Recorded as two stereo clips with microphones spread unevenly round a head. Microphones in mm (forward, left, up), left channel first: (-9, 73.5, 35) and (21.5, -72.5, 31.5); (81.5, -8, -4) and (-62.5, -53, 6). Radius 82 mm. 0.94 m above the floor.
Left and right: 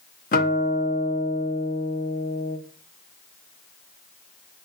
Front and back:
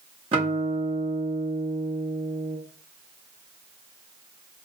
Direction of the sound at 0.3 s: 140° left.